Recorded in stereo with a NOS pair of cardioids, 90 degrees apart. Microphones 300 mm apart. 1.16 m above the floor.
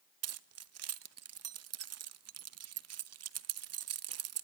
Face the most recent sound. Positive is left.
turn(degrees=-55)